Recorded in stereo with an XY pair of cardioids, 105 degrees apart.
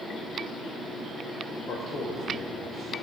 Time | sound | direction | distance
1.7 | a man speaking | 55° left | 3.5 m